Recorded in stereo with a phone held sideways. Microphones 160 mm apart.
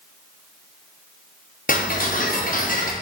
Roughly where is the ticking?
Left.